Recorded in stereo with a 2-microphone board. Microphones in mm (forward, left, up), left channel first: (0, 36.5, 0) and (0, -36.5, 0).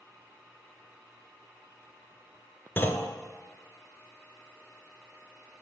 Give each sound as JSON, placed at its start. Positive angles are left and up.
{"t": 2.8, "sound": "a clunk", "side_deg": 30, "distance_m": 0.8}